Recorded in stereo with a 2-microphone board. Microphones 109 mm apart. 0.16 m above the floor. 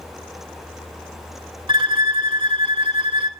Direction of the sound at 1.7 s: 50° right (ahead or behind).